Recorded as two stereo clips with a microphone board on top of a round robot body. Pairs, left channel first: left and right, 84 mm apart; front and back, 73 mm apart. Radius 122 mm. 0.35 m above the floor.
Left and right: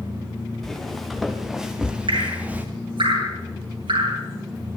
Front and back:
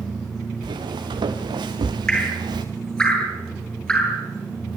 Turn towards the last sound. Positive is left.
turn(degrees=-80)